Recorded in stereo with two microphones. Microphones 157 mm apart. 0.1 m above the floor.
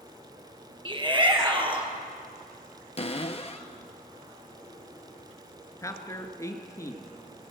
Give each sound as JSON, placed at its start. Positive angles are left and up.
{"t": 0.8, "sound": "a shout", "side_deg": -30, "distance_m": 2.5}
{"t": 3.0, "sound": "a cupboard door", "side_deg": 45, "distance_m": 1.0}
{"t": 5.8, "sound": "a man speaking", "side_deg": 20, "distance_m": 1.2}